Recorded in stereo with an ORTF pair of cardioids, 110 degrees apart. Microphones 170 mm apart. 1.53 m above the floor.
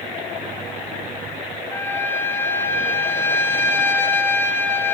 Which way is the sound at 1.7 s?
15° left.